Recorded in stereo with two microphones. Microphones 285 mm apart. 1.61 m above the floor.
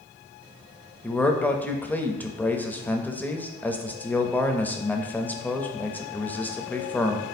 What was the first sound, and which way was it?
A man speaking, 5° left (ahead or behind).